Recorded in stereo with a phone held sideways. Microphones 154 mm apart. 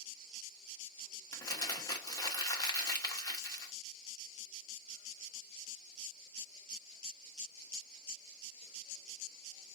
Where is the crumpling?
25° left (ahead or behind), 1.1 m.